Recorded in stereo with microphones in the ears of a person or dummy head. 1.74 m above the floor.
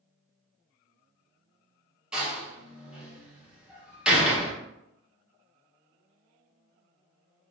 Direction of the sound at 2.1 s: 5° right (ahead or behind).